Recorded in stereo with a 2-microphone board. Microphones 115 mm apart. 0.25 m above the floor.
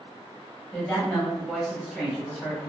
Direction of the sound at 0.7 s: 15° left (ahead or behind).